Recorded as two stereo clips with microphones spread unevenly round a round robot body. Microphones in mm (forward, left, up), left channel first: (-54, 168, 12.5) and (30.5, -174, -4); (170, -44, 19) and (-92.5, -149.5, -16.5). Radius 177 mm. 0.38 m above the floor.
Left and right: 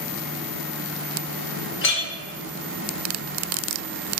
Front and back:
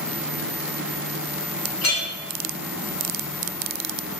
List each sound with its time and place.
1.8 s a clink: 55° left, 0.6 m